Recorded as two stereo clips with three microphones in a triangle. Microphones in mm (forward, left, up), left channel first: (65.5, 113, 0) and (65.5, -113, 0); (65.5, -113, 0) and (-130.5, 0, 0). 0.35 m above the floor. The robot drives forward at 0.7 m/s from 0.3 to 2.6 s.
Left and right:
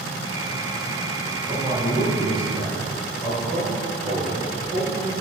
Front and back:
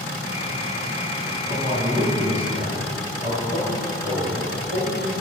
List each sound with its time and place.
1.5 s a man speaking: 150° right, 3.5 m; by 5.1 s 155° right, 4 m